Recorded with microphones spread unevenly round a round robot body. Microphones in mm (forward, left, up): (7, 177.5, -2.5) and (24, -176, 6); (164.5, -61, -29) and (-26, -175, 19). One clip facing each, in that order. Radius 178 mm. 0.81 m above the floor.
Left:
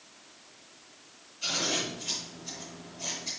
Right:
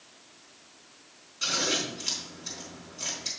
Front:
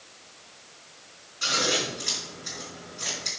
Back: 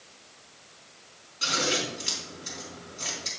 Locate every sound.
1.4 s scissors: 100° right, 4 m